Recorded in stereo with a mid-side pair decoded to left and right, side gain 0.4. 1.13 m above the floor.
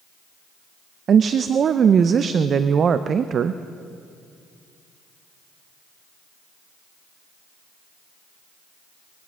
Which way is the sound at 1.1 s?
55° right.